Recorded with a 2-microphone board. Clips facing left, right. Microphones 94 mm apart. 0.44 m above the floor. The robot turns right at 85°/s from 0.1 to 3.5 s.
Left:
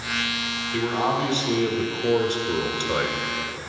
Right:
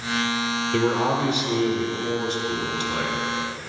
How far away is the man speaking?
About 1.3 m.